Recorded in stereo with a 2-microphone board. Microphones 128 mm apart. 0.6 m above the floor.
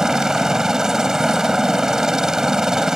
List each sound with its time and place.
0.0 s a helicopter: 5° right (ahead or behind)